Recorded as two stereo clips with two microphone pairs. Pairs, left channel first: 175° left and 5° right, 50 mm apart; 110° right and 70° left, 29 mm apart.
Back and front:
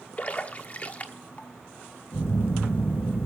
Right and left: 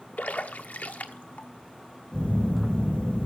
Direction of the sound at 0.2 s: 130° right.